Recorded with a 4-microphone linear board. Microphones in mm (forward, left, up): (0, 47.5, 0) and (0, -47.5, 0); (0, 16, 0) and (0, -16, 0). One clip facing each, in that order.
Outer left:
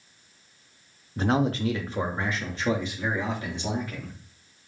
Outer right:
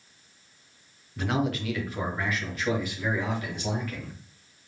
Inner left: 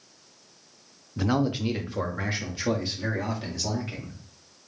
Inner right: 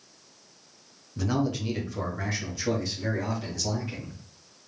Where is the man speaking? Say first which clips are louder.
Outer left 4 dB, inner left 2 dB; 30° left (ahead or behind), 0.6 m; by 4.1 s 25° left (ahead or behind), 2.5 m.